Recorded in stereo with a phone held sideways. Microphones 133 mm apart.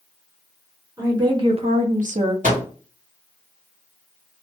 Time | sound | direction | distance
1.0 | a woman speaking | 25° right (ahead or behind) | 1.5 m
2.4 | a microwave | 75° right (ahead or behind) | 1.8 m